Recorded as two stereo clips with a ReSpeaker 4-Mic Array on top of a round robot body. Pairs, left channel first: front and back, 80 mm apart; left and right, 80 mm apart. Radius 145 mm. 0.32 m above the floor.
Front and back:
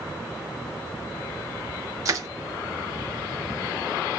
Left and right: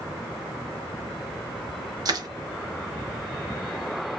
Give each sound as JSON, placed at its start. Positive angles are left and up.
{"t": 2.0, "sound": "crushing", "azimuth_deg": -130, "distance_m": 1.0}